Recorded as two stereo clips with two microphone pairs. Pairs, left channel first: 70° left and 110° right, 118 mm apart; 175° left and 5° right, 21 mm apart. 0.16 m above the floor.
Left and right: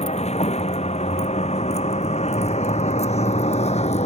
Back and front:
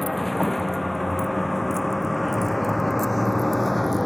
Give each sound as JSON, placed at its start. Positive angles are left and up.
{"t": 0.0, "sound": "a vehicle", "azimuth_deg": 90}